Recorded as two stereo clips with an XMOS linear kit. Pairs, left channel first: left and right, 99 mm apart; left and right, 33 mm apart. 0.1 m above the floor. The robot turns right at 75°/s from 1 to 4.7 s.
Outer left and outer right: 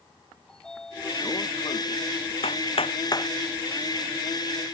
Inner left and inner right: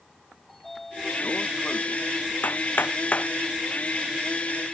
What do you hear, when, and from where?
0.5 s a sliding door: 5° left; by 2.3 s 105° left
2.4 s hammering: 80° left; by 3.3 s 30° left (ahead or behind)